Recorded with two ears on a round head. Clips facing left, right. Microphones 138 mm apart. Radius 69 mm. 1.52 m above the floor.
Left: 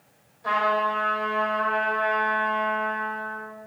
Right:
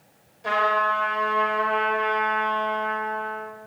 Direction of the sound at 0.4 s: 25° right (ahead or behind).